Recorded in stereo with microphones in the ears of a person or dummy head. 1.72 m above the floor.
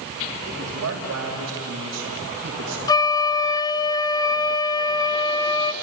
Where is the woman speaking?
85° right, 4.5 m; by 2.8 s 70° right (ahead or behind), 2 m.